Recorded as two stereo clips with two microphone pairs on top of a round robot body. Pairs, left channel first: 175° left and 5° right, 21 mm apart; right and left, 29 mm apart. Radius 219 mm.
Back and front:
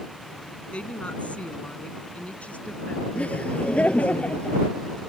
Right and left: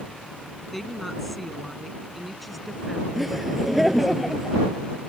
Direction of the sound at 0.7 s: 175° right.